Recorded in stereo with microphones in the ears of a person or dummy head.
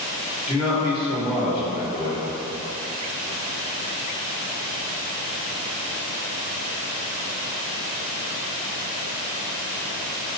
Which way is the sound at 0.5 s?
25° left (ahead or behind).